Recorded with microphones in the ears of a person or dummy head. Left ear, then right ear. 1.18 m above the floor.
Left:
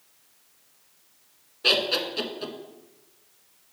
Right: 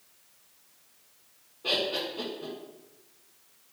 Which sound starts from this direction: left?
Laughter, at 1.6 s.